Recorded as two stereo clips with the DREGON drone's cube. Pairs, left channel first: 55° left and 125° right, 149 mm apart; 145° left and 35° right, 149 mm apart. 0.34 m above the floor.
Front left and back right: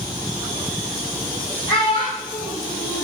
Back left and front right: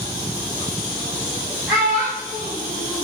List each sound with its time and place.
1.7 s a child speaking: 45° left, 4 m